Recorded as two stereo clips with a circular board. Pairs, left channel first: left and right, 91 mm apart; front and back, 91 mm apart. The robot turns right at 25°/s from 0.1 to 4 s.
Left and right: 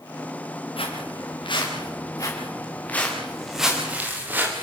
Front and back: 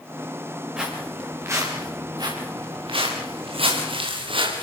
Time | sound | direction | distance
0.8 | footsteps | 100° left | 8 m